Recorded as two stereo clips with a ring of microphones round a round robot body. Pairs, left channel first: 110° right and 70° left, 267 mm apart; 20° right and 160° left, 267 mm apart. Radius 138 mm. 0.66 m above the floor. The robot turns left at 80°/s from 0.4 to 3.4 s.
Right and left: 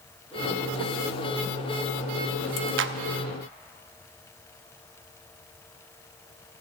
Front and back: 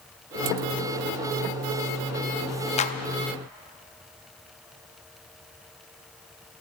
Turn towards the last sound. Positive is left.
turn(degrees=-10)